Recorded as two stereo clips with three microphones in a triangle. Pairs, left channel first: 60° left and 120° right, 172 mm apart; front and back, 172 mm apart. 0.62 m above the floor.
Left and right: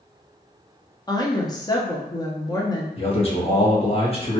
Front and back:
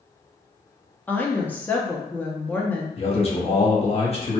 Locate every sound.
1.1 s a woman speaking: 65° left, 0.5 m
3.0 s a man speaking: 30° left, 0.9 m